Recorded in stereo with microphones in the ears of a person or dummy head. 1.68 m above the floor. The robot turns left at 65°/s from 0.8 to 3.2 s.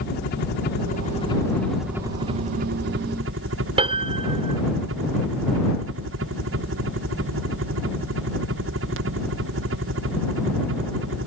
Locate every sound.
0.0 s a helicopter: 60° left; by 11.3 s 95° right
3.8 s a piano: 30° right (ahead or behind)